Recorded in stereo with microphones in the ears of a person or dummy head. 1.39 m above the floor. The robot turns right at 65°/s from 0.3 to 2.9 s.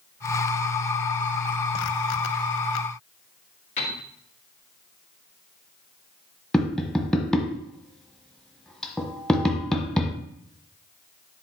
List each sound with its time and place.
3.8 s a piano: 35° left (ahead or behind), 2 m
6.5 s tapping: centre (ahead or behind), 1.2 m